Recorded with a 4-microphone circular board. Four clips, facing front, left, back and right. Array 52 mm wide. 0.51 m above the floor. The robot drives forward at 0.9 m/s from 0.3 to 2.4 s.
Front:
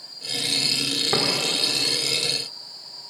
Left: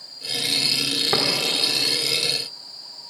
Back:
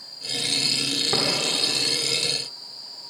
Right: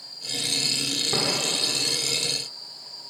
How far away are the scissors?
I don't hear scissors.